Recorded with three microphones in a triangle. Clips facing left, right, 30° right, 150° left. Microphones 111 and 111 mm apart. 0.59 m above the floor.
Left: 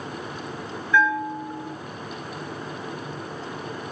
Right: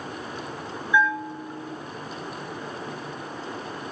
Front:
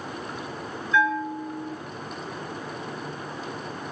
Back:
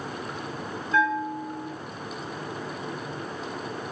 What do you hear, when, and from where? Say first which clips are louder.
0.9 s a bell: left 2 dB, front 1 dB; 165° right, 8.5 m